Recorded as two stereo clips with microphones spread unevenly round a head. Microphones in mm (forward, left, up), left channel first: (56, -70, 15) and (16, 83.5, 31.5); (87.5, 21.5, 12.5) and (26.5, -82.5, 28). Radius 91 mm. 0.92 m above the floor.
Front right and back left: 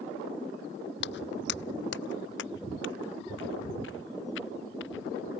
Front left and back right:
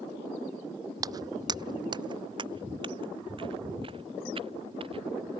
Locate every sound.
1.0 s footsteps: 65° right; by 5.4 s 80° right